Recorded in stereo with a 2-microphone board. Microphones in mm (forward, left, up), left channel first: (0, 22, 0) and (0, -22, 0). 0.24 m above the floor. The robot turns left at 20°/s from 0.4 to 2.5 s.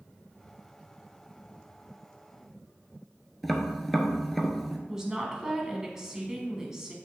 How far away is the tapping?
About 1.1 m.